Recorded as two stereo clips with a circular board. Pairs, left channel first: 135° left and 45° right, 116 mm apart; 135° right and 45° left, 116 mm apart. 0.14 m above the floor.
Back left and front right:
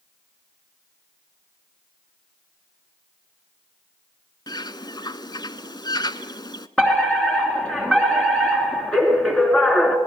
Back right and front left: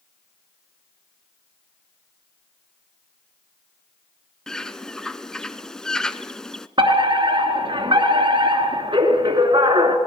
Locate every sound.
4.5 s a bird: 145° left, 0.8 m
6.8 s a fire alarm: 55° left, 3 m